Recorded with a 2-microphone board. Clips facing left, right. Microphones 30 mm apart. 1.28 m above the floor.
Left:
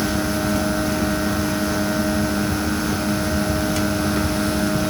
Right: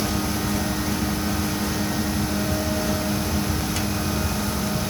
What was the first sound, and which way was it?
Only background noise.